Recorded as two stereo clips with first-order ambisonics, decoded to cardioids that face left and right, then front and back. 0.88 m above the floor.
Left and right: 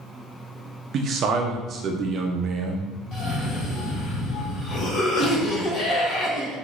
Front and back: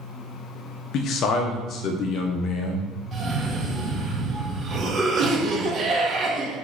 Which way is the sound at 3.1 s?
125° left.